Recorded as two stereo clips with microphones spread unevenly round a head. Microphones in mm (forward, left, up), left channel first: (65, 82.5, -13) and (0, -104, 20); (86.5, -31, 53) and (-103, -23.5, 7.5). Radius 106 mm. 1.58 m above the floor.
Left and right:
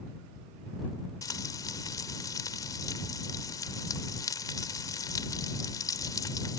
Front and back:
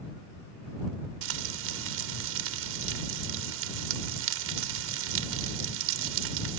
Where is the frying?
150° left.